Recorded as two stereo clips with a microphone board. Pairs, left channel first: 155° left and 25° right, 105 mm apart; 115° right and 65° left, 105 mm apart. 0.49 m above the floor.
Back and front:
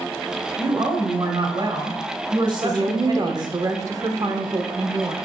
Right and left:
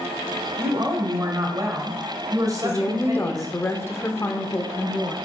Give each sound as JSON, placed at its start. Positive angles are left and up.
{"t": 0.6, "sound": "a woman speaking", "azimuth_deg": 15, "distance_m": 1.7}
{"t": 2.6, "sound": "a woman speaking", "azimuth_deg": -55, "distance_m": 1.1}